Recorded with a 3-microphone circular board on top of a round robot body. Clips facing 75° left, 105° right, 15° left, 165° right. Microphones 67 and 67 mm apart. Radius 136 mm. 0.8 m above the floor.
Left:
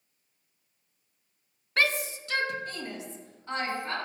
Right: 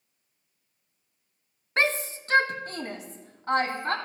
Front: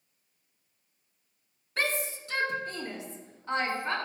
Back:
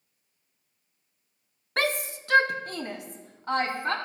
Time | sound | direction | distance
1.8 | a shout | 160° right | 1.0 m